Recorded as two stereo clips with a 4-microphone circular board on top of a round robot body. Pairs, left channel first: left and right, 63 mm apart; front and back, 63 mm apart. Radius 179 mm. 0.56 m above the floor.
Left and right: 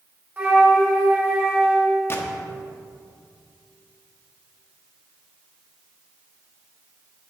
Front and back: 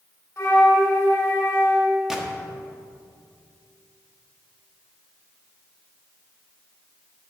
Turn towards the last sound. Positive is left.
turn(degrees=105)